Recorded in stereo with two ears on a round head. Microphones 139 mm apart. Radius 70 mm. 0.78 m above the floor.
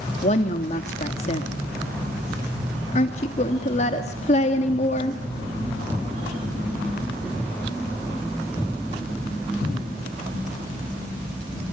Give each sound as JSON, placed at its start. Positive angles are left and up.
{"t": 0.2, "sound": "a woman speaking", "side_deg": 45, "distance_m": 1.5}